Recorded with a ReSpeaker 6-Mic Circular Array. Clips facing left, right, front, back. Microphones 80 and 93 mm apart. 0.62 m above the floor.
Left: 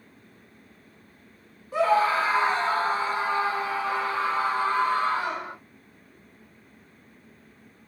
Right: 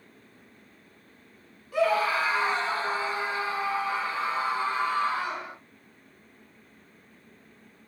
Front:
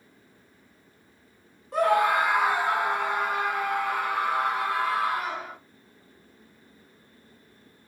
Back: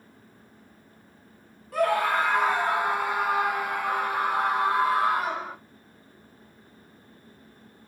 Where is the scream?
50° left, 1.2 m; by 5.5 s 125° left, 2 m.